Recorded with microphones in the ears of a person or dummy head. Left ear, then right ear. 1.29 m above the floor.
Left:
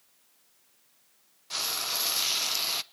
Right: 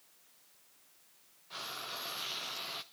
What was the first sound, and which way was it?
Frying, 75° left (ahead or behind).